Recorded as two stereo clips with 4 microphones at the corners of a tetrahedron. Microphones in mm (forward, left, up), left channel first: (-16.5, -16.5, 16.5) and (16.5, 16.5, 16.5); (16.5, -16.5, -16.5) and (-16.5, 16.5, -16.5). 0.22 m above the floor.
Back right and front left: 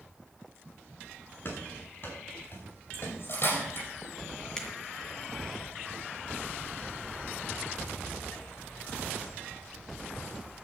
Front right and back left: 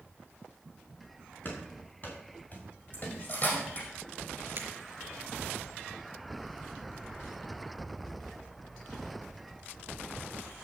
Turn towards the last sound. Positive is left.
turn(degrees=155)